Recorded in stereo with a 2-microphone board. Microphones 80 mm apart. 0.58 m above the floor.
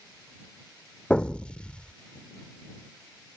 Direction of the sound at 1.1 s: 15° left (ahead or behind).